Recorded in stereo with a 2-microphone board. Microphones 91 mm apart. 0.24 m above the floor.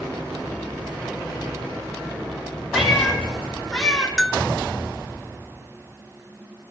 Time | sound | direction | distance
2.7 | a cat meowing | 5° right (ahead or behind) | 3 m
4.2 | a bell | centre (ahead or behind) | 0.9 m